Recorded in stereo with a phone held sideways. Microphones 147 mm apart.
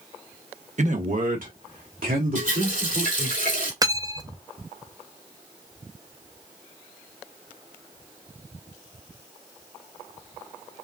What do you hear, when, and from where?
0.8 s a man speaking: 55° right (ahead or behind), 0.9 m; by 3.4 s 85° right, 3.5 m
2.4 s a running tap: 80° right, 3 m
3.8 s cutlery clinking: 25° right (ahead or behind), 0.5 m